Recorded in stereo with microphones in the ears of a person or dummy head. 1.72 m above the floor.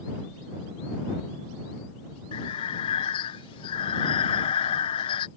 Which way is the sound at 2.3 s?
30° left (ahead or behind).